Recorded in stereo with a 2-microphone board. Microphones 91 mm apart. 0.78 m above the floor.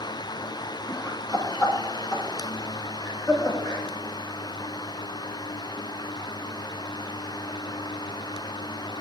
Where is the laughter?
35° left (ahead or behind), 6.5 m; by 3.8 s 50° left (ahead or behind), 8 m.